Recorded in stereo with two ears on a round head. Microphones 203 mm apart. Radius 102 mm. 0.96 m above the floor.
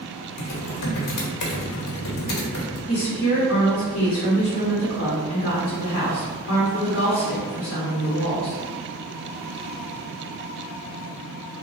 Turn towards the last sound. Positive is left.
turn(degrees=55)  # may be behind; listen again after turning